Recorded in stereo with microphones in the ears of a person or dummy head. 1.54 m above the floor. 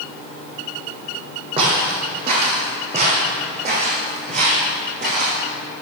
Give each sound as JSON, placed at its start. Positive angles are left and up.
{"t": 1.6, "sound": "footsteps", "side_deg": -25, "distance_m": 3.5}